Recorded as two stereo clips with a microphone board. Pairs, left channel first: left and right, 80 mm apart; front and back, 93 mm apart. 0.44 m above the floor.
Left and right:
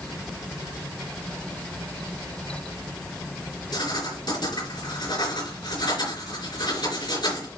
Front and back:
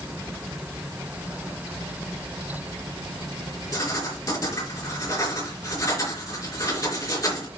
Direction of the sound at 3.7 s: 55° left.